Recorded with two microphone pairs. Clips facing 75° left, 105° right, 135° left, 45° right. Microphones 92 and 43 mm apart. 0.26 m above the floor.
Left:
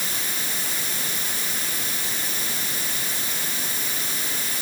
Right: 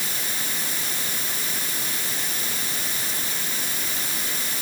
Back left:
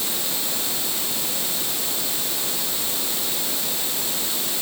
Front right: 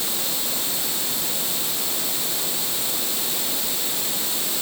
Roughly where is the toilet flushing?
No toilet flushing in this recording.